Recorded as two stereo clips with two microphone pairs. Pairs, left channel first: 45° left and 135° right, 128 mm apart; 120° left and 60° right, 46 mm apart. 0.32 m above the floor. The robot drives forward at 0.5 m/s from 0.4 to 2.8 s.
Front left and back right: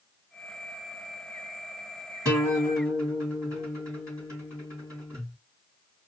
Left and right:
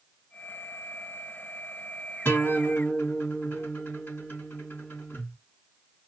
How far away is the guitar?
About 3 m.